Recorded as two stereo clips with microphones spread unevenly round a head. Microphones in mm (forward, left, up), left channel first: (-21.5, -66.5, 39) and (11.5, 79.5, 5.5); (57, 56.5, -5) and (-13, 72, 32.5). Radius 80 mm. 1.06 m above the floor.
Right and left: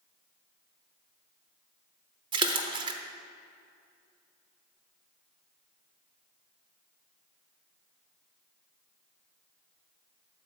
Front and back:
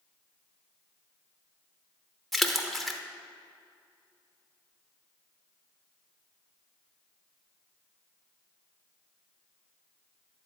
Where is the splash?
135° left, 0.7 m.